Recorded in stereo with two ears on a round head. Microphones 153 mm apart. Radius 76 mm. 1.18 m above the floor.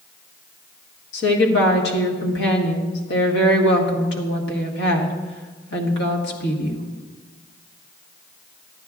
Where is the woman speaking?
70° left (ahead or behind), 1.5 m.